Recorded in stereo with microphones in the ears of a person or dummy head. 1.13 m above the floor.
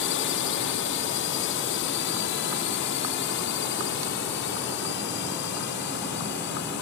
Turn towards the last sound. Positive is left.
turn(degrees=55)  # may be behind; listen again after turning